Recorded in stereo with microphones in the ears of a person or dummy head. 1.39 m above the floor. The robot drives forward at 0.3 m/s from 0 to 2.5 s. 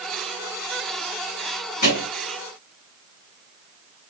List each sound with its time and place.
1.8 s a thud: 45° left (ahead or behind), 3.5 m